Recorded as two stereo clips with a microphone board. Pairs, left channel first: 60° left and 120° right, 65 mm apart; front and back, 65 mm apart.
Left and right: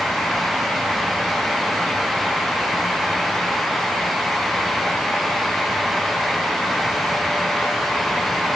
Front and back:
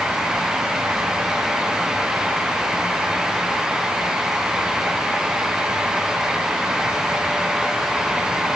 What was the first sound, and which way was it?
Only background noise.